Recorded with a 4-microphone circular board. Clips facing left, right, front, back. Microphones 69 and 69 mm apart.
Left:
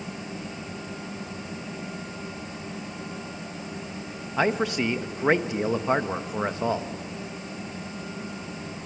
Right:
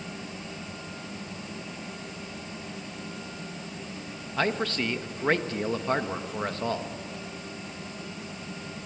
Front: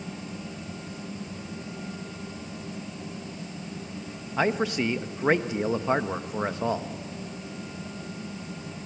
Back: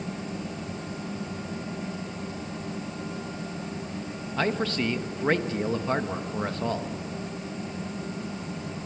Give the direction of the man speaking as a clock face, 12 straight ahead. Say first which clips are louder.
Left 4 dB, front 2 dB; 11 o'clock.